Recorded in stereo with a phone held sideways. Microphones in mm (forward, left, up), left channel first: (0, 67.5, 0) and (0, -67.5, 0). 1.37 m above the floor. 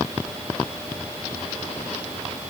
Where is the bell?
I don't hear a bell.